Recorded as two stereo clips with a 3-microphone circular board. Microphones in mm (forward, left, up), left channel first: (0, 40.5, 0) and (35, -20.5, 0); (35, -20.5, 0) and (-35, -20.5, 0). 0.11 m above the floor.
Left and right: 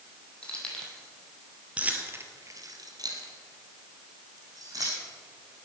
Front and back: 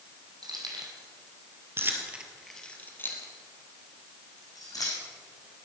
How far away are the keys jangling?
About 3 m.